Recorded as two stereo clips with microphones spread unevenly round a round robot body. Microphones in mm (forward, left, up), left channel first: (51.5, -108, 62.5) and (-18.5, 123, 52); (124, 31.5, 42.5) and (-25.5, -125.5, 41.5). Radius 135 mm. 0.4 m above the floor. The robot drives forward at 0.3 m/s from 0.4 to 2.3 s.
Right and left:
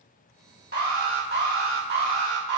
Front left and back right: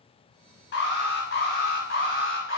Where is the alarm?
70° left, 2.5 m; by 2.6 s 85° left, 2.5 m.